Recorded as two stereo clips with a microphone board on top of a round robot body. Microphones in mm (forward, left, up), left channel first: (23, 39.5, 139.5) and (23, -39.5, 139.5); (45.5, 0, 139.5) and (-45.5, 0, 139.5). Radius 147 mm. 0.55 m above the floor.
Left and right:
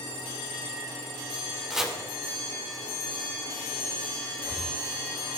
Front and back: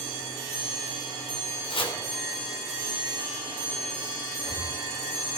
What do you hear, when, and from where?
1.7 s chopping: 5° right, 2.5 m
4.3 s breathing: 150° right, 2 m